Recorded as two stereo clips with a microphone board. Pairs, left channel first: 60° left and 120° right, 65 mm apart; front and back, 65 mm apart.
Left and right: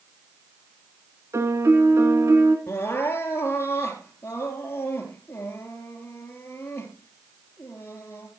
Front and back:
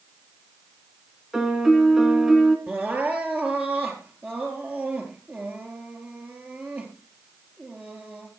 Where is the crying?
115° left, 3.5 m.